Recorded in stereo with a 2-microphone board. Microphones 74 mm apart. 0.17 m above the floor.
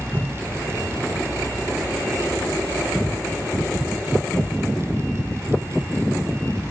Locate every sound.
0.1 s a whoosh: 20° right (ahead or behind), 6.5 m